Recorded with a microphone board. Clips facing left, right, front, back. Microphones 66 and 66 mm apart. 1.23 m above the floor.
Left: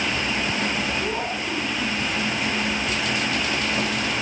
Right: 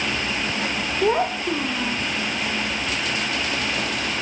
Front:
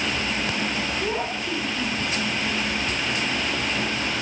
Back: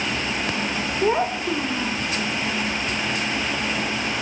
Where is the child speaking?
125° right, 1.7 m.